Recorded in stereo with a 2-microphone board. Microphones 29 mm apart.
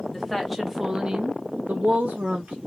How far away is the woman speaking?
About 0.9 m.